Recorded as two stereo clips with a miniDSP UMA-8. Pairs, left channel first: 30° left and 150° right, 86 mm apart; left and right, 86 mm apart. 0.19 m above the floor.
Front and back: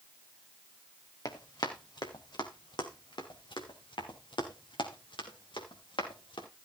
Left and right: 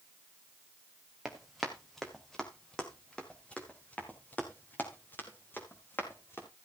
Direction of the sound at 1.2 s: 5° right.